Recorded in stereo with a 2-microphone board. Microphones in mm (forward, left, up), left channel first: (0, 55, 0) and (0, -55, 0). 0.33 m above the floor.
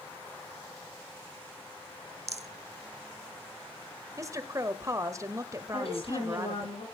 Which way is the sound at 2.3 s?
80° right.